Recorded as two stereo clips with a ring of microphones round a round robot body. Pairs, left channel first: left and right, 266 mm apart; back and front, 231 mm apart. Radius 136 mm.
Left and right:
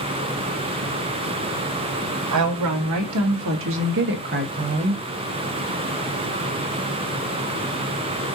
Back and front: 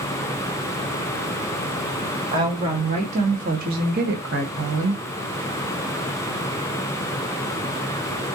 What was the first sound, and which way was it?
A woman speaking, 75° right.